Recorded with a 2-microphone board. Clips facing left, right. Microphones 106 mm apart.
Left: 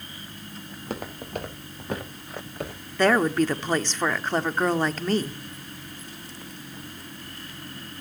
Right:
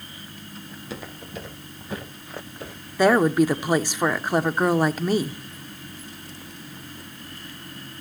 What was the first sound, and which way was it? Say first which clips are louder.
Footsteps: left 4 dB; 50° left (ahead or behind).